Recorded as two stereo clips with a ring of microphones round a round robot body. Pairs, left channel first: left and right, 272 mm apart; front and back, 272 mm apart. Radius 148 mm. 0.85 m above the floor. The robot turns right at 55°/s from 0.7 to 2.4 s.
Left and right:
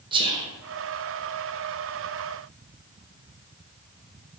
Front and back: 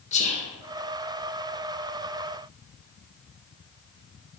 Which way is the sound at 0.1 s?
35° right.